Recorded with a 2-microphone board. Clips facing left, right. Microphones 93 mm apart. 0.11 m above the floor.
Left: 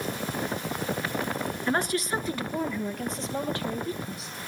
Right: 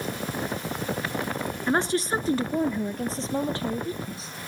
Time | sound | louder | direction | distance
1.7 | a woman speaking | right 3 dB | 25° right (ahead or behind) | 1.2 m